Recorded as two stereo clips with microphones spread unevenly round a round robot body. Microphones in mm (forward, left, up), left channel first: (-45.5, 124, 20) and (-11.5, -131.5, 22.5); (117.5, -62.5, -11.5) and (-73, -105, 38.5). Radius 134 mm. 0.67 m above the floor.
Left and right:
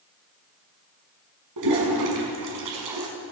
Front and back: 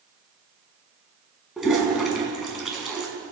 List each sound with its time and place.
1.6 s a toilet flushing: 80° right, 6 m